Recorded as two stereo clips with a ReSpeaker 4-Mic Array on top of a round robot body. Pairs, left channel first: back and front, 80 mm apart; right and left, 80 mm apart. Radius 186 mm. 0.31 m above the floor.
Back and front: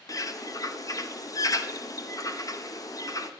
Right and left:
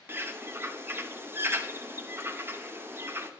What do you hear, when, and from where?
0.1 s a bird: 145° left, 0.6 m